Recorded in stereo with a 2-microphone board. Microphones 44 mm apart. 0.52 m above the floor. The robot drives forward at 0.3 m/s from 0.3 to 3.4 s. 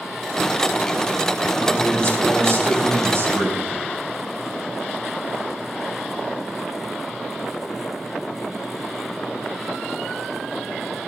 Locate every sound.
1.6 s a man speaking: 60° right (ahead or behind), 3.5 m; by 3.8 s 65° right (ahead or behind), 3 m